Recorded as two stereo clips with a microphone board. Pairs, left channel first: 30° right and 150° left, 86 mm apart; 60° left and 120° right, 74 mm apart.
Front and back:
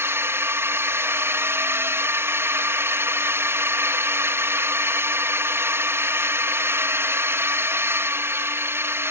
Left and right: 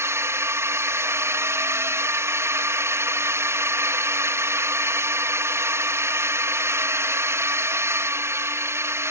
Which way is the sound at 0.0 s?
160° right.